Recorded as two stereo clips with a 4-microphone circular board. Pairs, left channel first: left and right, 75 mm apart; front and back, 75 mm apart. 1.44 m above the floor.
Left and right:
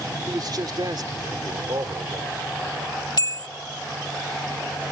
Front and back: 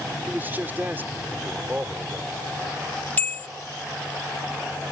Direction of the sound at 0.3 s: 115° right.